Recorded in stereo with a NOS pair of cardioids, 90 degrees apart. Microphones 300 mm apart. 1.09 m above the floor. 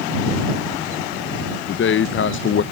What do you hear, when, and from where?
1.7 s a man speaking: 45° left